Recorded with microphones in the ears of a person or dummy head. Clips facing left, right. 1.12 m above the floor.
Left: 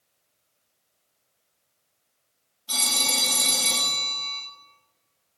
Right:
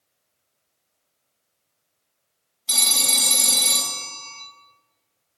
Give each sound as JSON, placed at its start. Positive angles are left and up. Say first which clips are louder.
{"t": 2.7, "sound": "a phone ringing", "louder": "even", "side_deg": -30, "distance_m": 1.5}